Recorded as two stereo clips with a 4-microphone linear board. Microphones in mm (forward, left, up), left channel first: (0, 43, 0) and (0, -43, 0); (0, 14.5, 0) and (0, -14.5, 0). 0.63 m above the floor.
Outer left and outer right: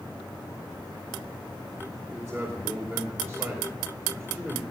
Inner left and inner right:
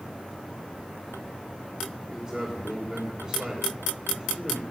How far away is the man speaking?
About 2 m.